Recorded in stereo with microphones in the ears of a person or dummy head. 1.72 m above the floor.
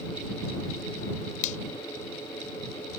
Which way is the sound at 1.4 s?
45° left (ahead or behind).